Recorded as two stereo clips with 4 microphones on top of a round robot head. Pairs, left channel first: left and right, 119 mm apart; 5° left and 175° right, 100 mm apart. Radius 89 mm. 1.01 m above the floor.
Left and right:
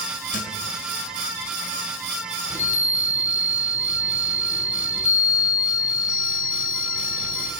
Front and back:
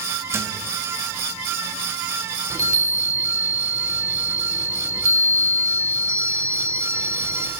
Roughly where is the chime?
Behind left.